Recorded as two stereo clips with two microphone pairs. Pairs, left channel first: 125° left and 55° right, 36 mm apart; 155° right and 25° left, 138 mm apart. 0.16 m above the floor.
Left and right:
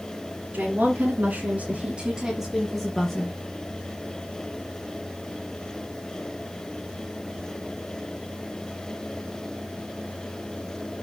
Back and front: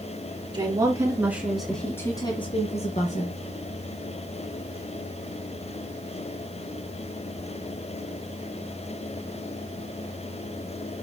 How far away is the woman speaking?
About 2.5 m.